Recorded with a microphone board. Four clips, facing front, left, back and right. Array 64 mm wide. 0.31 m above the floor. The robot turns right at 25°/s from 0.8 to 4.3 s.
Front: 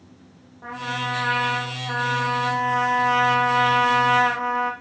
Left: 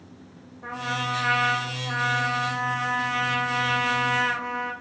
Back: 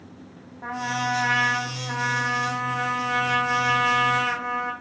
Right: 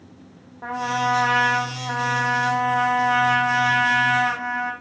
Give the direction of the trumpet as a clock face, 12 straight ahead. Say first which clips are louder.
Right 6 dB, back 1 dB; 3 o'clock.